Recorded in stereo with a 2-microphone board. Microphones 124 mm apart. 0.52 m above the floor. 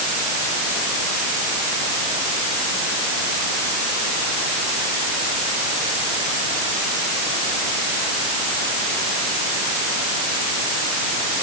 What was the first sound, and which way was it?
Only background noise.